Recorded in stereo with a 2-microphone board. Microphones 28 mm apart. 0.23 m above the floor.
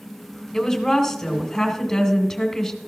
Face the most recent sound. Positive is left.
turn(degrees=10)  # may be behind; listen again after turning